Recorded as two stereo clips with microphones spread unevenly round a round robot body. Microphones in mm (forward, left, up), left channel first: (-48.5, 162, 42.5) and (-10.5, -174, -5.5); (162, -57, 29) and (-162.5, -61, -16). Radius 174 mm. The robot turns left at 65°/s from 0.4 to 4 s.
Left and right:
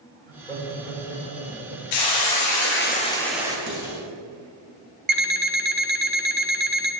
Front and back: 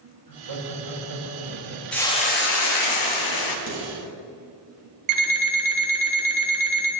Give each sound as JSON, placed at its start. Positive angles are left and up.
{"t": 0.3, "sound": "laughter", "azimuth_deg": 180, "distance_m": 3.0}
{"t": 1.9, "sound": "a hiss", "azimuth_deg": 95, "distance_m": 0.9}
{"t": 3.7, "sound": "dishes clattering", "azimuth_deg": -35, "distance_m": 3.0}
{"t": 5.1, "sound": "an alarm clock", "azimuth_deg": -150, "distance_m": 0.9}